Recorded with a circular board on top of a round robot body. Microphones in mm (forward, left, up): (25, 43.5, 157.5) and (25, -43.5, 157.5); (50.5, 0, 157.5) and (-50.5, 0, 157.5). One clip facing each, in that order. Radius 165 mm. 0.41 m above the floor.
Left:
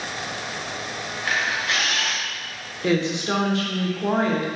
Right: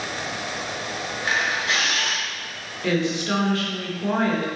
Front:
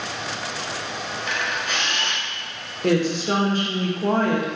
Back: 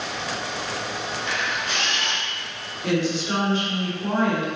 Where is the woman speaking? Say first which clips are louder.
Left 1 dB, front 3 dB; 25° left, 1.5 m.